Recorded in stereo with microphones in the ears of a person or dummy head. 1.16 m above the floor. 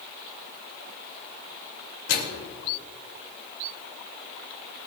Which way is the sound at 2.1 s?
80° left.